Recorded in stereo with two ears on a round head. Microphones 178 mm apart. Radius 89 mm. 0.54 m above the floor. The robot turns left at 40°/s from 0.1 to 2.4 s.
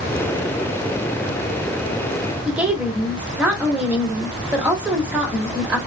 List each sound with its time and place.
2.5 s a woman speaking: 5° right (ahead or behind), 1.2 m